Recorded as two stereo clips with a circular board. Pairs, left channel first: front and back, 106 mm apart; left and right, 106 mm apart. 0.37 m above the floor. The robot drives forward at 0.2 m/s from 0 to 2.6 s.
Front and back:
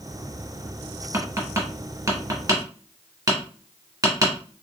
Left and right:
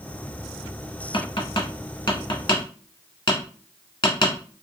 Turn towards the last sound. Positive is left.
turn(degrees=135)